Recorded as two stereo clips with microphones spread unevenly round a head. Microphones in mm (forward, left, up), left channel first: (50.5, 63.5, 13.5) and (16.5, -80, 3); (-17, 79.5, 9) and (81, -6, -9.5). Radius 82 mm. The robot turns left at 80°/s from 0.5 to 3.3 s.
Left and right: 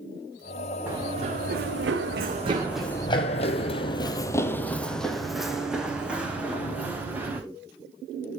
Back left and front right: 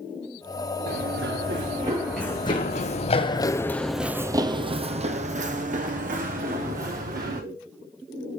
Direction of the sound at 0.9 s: 25° right.